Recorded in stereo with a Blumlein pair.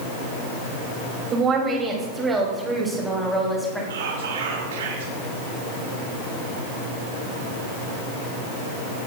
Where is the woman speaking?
25° right, 3 m; by 3.8 s straight ahead, 4 m.